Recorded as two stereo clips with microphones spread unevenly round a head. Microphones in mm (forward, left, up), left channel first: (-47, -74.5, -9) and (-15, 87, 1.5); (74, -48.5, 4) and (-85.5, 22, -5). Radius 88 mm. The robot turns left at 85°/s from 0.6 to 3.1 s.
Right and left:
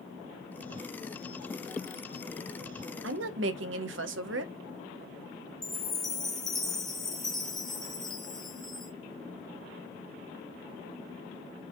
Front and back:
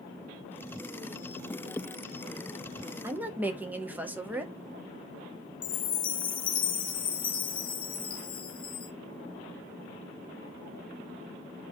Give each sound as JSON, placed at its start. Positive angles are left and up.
{"t": 3.0, "sound": "a woman speaking", "azimuth_deg": 80, "distance_m": 0.6}
{"t": 5.6, "sound": "a chime", "azimuth_deg": -10, "distance_m": 0.6}